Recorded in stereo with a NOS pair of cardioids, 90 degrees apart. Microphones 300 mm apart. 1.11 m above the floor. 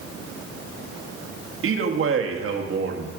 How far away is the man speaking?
About 1.5 m.